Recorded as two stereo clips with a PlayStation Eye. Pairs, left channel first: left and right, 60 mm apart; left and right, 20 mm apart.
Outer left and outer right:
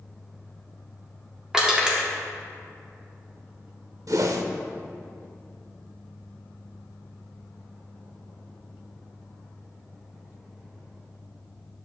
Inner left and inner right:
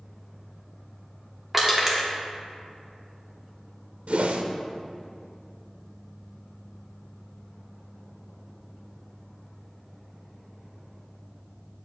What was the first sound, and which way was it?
Crushing, 15° right (ahead or behind).